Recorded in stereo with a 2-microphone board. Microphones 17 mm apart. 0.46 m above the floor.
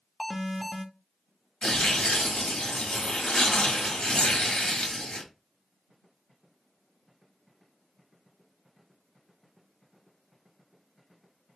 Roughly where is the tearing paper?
Left.